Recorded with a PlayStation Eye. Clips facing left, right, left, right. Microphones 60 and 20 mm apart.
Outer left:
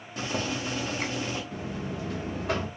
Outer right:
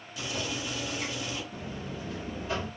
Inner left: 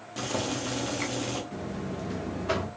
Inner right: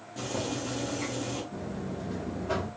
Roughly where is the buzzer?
Left.